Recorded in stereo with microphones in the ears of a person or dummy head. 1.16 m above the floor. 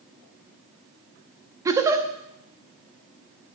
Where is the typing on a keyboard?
No typing on a keyboard in this recording.